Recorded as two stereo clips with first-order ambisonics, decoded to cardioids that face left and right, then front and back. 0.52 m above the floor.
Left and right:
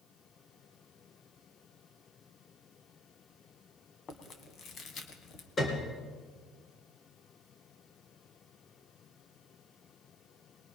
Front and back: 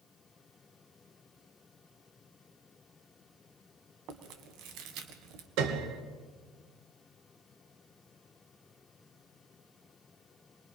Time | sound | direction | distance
4.1 | chewing | 150° left | 1.9 m
5.6 | a piano | 165° left | 2.5 m